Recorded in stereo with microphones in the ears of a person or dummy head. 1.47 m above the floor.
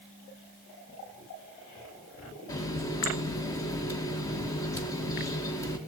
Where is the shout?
No shout in this recording.